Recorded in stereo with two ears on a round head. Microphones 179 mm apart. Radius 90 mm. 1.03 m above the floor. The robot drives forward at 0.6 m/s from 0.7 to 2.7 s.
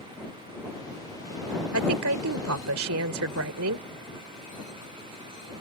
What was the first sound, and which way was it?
A woman speaking, 80° right.